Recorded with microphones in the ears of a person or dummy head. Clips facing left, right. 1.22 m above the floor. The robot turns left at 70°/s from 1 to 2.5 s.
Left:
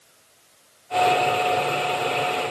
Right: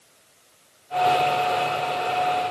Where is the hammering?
No hammering in this recording.